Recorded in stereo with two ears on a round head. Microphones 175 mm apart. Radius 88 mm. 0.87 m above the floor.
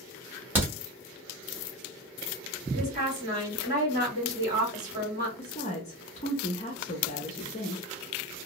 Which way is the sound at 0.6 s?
10° right (ahead or behind).